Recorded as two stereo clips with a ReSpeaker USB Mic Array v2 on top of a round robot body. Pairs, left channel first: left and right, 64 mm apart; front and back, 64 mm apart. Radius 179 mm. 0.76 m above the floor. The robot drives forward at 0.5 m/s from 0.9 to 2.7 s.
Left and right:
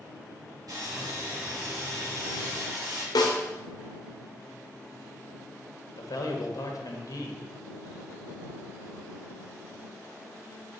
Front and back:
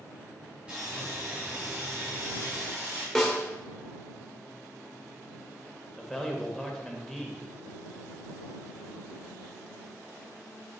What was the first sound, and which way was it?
Sawing, 110° right.